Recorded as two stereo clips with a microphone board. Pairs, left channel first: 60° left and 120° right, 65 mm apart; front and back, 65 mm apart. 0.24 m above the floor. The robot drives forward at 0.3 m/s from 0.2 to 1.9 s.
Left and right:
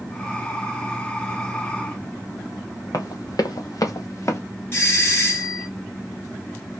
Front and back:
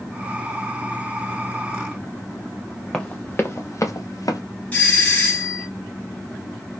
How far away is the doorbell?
About 2.5 m.